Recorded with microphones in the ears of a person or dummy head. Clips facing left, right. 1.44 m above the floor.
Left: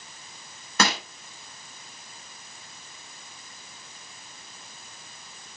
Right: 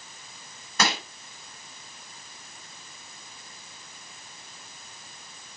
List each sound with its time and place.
0.8 s crushing: 50° left (ahead or behind), 1.6 m